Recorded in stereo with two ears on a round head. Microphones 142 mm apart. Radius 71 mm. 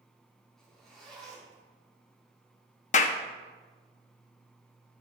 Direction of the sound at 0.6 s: 5° left (ahead or behind).